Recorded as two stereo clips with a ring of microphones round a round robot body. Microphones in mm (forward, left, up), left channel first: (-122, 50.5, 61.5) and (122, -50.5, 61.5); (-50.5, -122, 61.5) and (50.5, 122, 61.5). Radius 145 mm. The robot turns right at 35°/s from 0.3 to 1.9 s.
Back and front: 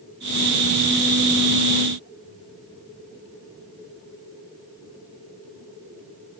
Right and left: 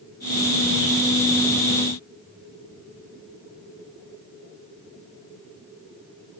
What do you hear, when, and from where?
Only background noise.